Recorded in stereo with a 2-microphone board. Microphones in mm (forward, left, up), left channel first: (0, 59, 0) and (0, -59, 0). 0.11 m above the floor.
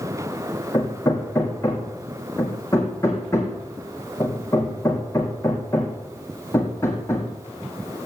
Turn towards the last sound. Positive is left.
turn(degrees=25)  # may be behind; listen again after turning